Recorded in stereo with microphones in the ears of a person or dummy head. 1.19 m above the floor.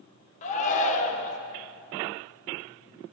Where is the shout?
40° left (ahead or behind), 1.0 m.